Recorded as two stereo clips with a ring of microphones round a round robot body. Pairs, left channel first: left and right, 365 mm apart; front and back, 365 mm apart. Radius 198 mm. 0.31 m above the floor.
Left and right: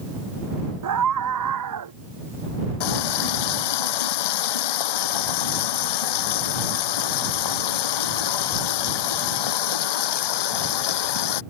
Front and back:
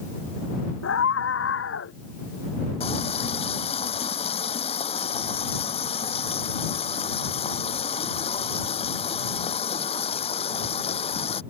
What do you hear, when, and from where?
0.8 s a scream: 55° right
2.8 s a running tap: 75° left